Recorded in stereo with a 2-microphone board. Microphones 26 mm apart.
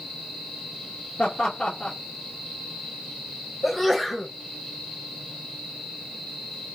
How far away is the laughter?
About 1.2 m.